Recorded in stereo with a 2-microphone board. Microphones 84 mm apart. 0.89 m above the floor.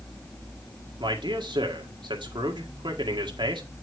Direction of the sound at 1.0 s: 70° right (ahead or behind).